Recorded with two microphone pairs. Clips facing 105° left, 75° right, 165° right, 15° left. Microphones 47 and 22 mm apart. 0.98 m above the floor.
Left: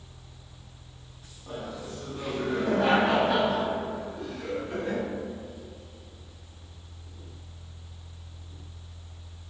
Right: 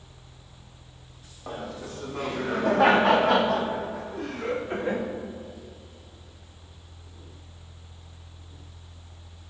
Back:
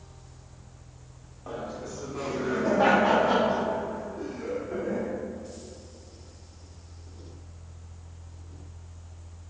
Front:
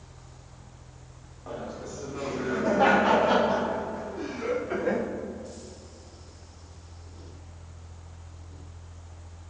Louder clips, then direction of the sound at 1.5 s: Right 1 dB, back 1 dB; 90° right.